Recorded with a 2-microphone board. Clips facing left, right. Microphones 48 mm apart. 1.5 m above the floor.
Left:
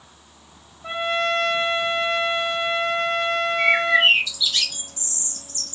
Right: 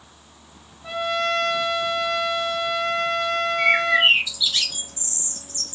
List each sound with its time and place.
0.8 s a trumpet: 30° left (ahead or behind), 0.5 m
3.6 s a bird: 10° right (ahead or behind), 0.7 m